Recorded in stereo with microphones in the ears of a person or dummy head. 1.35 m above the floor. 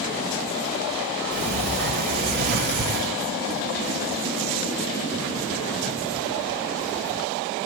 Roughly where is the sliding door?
Right.